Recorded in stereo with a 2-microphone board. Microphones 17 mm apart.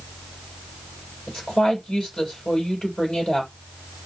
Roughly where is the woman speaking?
Left.